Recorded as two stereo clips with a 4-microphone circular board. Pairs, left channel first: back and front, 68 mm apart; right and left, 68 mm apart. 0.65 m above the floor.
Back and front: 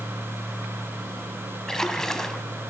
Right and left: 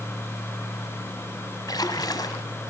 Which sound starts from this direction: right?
A splash, at 1.7 s.